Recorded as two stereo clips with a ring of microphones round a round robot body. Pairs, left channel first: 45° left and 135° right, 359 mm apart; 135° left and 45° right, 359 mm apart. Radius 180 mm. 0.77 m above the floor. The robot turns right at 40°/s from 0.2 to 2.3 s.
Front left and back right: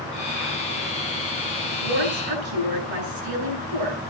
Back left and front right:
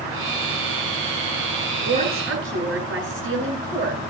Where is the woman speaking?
125° right, 9.5 m; by 4.0 s 105° right, 9.5 m.